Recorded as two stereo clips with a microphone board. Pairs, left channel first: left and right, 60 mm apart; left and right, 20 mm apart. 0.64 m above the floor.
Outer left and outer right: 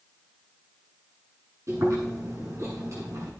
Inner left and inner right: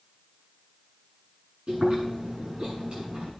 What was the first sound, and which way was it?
Chewing, 60° right (ahead or behind).